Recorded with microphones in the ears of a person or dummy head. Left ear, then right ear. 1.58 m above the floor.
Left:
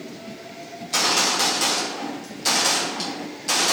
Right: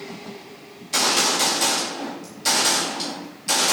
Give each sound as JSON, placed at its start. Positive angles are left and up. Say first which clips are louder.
{"t": 0.8, "sound": "a gunshot", "louder": "even", "side_deg": 10, "distance_m": 1.7}